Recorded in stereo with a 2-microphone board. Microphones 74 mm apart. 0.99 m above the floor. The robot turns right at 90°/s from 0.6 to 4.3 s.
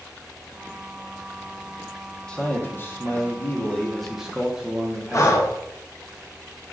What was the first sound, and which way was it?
A man speaking, 15° left.